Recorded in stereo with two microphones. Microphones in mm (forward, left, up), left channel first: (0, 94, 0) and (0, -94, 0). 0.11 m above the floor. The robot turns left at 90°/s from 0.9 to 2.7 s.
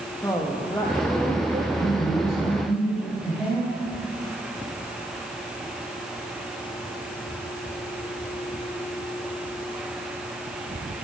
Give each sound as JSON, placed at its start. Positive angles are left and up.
{"t": 0.2, "sound": "a woman speaking", "azimuth_deg": 15, "distance_m": 4.0}
{"t": 1.7, "sound": "a man speaking", "azimuth_deg": 105, "distance_m": 6.5}